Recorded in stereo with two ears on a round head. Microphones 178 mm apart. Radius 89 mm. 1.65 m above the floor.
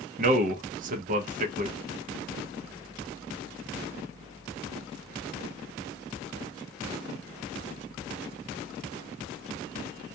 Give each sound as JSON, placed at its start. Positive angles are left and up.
{"t": 0.2, "sound": "a man speaking", "side_deg": -40, "distance_m": 0.6}